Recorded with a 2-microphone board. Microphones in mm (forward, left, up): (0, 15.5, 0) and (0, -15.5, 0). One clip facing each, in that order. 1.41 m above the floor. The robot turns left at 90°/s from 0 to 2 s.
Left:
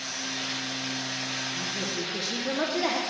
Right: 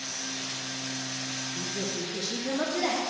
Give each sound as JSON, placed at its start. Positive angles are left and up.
{"t": 1.6, "sound": "a woman speaking", "azimuth_deg": -150, "distance_m": 0.7}